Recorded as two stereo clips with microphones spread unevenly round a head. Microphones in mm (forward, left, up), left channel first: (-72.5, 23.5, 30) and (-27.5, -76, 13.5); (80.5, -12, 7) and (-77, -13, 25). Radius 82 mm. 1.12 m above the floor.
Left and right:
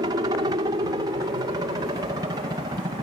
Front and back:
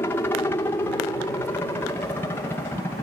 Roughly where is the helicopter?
Ahead right.